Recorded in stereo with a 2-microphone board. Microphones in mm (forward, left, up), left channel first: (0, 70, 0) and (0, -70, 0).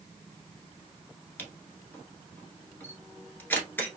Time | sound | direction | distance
1.4 | a camera shutter | 15° left (ahead or behind) | 1.2 m